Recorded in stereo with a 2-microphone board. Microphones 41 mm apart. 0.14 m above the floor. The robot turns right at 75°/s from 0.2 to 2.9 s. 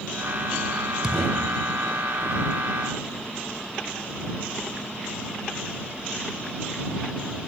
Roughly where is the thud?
Ahead.